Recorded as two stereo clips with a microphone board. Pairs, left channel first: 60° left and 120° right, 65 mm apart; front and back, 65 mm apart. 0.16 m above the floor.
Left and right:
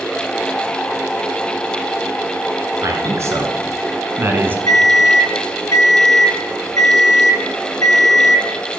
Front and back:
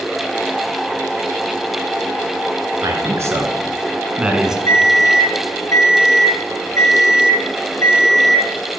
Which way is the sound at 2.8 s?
155° right.